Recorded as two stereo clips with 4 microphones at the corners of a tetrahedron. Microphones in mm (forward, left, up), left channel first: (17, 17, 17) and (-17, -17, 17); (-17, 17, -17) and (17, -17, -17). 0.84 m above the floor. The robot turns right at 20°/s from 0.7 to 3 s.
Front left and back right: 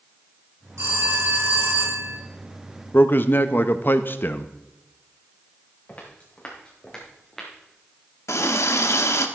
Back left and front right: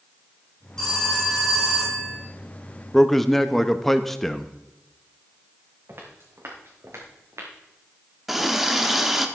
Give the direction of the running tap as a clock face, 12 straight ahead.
11 o'clock.